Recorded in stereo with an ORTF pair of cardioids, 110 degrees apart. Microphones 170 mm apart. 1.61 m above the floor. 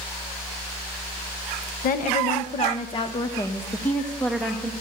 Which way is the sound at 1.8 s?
60° left.